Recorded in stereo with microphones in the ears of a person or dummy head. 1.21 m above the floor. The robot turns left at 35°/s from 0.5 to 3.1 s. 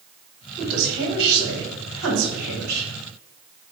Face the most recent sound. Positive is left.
turn(degrees=-120)